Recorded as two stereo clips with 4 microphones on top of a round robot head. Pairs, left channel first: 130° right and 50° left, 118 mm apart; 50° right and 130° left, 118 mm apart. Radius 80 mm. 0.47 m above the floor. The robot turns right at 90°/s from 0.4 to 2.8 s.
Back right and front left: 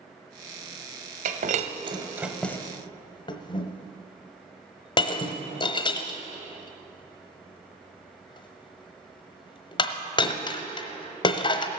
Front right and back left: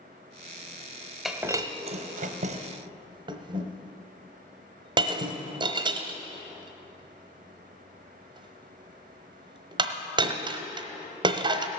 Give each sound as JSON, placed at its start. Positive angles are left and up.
{"t": 1.2, "sound": "breaking glass", "azimuth_deg": 40, "distance_m": 1.0}